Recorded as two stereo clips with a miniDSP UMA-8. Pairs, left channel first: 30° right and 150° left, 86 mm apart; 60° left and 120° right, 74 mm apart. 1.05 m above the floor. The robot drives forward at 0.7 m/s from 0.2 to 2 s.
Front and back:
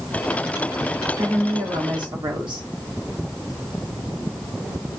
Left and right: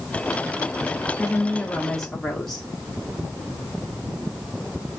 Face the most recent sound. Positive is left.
turn(degrees=145)